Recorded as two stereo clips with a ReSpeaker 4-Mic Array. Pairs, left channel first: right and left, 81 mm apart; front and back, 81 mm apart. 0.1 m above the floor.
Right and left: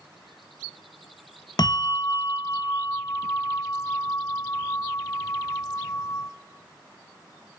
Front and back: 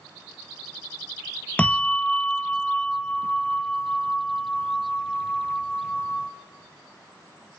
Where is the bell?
70° right, 1.1 m.